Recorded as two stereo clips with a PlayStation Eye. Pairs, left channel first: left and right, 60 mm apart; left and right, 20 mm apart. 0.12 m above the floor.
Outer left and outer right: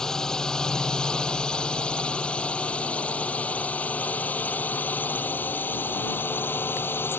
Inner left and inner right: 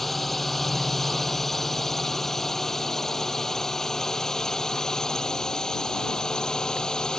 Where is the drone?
10° left (ahead or behind); by 7.2 s 40° left (ahead or behind).